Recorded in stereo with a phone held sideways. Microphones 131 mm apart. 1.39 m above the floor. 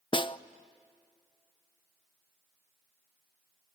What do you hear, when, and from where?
0.1 s a snare drum: 35° left (ahead or behind), 0.6 m